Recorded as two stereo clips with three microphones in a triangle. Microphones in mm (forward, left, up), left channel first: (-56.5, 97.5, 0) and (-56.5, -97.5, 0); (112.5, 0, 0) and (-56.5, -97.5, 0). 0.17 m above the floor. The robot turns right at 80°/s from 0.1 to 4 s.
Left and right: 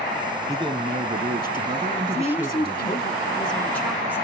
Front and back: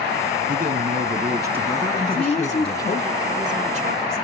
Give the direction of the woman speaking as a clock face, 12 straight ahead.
11 o'clock.